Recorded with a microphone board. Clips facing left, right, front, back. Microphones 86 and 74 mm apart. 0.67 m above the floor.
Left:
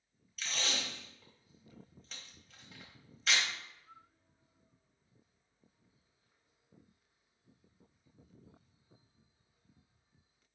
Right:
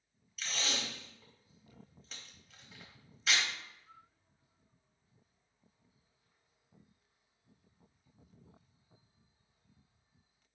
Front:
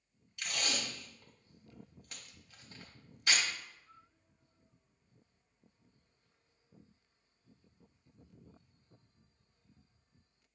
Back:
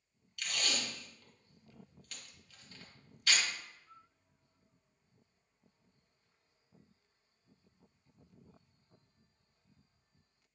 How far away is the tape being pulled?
About 0.9 m.